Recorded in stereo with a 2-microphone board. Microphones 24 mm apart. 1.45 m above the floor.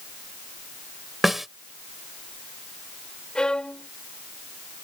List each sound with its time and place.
1.2 s a snare drum: 10° right (ahead or behind)
3.4 s a violin: 40° left (ahead or behind)